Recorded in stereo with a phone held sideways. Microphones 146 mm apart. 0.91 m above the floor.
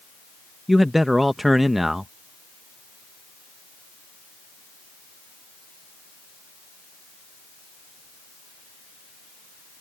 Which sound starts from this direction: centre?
A man speaking, at 0.7 s.